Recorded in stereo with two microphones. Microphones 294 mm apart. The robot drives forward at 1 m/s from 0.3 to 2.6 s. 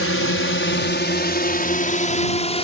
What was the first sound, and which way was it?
A drone, 45° left (ahead or behind).